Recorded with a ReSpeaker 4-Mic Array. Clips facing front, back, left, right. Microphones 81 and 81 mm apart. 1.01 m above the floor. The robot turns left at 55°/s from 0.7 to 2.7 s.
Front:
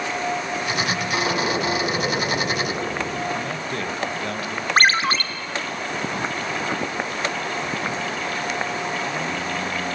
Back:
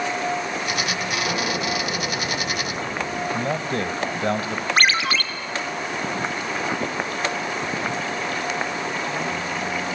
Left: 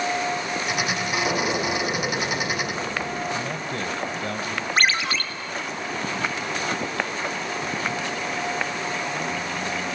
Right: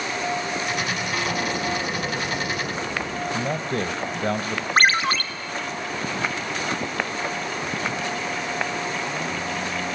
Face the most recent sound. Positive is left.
turn(degrees=-50)